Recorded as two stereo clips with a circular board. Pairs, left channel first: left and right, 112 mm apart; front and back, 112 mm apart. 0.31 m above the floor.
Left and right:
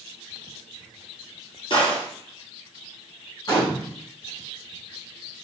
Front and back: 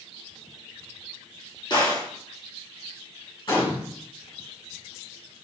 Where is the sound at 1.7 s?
45° left, 1.8 m.